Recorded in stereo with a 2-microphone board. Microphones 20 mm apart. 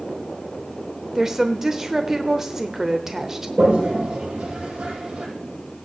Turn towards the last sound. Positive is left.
turn(degrees=-75)  # may be behind; listen again after turning